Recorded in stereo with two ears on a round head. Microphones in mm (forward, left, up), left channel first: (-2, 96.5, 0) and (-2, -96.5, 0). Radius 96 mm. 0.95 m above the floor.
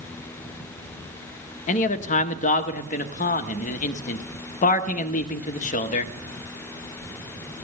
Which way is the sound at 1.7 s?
35° left (ahead or behind).